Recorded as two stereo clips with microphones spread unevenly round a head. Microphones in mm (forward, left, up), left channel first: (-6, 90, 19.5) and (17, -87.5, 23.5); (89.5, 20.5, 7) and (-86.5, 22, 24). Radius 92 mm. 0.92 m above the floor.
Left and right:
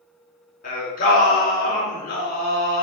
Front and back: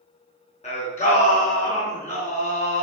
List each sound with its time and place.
0.6 s singing: 55° left, 3.5 m